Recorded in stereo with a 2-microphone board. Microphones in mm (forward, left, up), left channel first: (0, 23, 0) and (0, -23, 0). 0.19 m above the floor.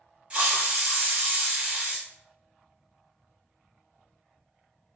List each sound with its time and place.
0.3 s a hiss: 25° right (ahead or behind), 0.9 m